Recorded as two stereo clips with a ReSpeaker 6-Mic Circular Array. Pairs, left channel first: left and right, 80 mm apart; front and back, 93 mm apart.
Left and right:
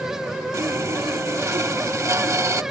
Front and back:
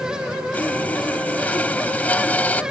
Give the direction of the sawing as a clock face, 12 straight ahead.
2 o'clock.